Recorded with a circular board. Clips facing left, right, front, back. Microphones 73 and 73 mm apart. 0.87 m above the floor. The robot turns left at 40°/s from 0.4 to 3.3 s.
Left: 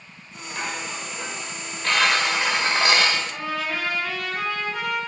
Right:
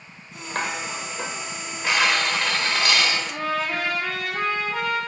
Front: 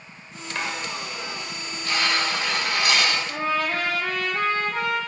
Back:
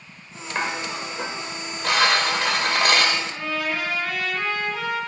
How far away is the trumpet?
About 8.5 m.